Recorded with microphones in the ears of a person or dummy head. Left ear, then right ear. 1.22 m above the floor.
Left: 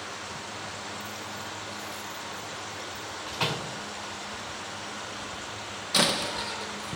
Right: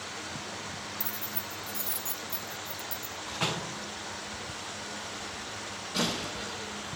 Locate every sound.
1.0 s keys jangling: 40° right (ahead or behind), 1.5 m; by 3.2 s 85° right, 2.5 m
3.3 s a door slam: 25° left (ahead or behind), 3 m
5.9 s a door slam: 70° left (ahead or behind), 1.4 m